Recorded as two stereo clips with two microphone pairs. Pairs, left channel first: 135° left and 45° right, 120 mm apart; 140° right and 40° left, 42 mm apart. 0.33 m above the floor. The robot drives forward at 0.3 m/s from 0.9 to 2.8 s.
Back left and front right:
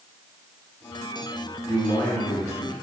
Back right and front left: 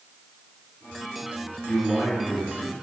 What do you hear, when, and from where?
1.7 s a man speaking: 160° right, 1.6 m; by 2.7 s 165° right, 1.9 m